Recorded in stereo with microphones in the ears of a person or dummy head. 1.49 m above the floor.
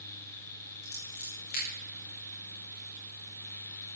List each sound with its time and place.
0.8 s scissors: 45° left (ahead or behind), 4.5 m